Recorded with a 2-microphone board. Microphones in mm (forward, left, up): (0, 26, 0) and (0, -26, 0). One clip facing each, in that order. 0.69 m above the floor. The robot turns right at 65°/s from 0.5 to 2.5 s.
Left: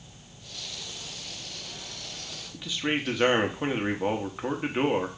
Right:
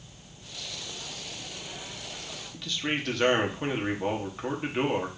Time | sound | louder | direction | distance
2.5 | a man speaking | left 2 dB | 15° left (ahead or behind) | 0.9 m